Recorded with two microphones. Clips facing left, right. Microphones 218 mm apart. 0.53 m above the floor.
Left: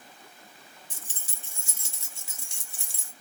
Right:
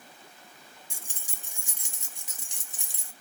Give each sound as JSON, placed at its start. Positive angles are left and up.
{"t": 0.9, "sound": "keys jangling", "side_deg": -10, "distance_m": 0.5}